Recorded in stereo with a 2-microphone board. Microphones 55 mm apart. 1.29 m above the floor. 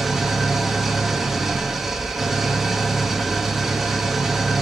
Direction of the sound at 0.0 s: 5° right (ahead or behind).